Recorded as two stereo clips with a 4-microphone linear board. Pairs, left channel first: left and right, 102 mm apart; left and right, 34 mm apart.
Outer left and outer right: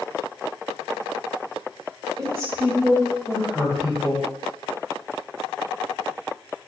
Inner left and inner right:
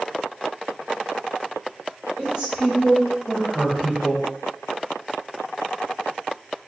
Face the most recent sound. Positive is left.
turn(degrees=10)  # may be behind; listen again after turning